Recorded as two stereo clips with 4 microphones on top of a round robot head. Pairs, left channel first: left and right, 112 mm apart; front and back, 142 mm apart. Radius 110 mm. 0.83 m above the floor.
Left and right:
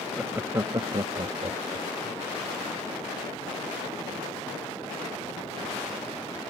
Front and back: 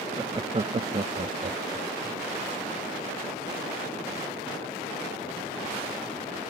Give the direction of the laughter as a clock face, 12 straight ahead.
6 o'clock.